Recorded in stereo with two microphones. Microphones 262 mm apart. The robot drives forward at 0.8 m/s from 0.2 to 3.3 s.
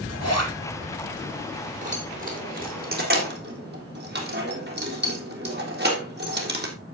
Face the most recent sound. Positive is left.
turn(degrees=-40)  # may be behind; listen again after turning